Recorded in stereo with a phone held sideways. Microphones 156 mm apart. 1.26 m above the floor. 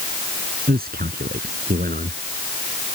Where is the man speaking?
70° right (ahead or behind).